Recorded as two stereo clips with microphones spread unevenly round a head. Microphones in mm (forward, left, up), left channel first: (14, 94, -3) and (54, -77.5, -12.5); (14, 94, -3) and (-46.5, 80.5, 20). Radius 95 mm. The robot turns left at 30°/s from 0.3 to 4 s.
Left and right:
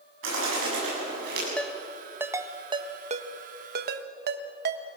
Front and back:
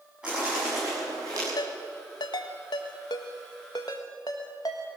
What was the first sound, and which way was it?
A bird, 85° right.